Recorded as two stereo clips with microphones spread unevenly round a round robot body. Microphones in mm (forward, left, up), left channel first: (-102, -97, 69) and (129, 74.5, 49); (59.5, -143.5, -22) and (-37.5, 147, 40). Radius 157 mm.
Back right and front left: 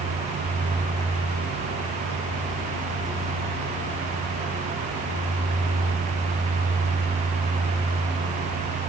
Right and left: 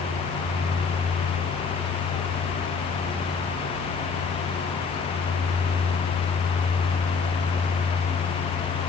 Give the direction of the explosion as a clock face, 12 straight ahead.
I don't hear an explosion.